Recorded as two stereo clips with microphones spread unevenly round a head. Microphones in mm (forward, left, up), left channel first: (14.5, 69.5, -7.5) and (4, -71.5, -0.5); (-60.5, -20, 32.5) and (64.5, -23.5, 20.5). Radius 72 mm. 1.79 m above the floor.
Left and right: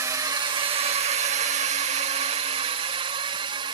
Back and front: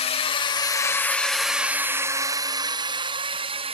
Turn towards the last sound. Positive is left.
turn(degrees=-40)